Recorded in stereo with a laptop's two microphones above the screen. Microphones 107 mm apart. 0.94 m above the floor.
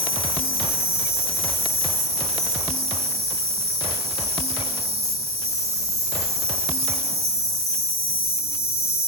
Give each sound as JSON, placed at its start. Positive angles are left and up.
{"t": 0.0, "sound": "an insect", "side_deg": -70, "distance_m": 1.7}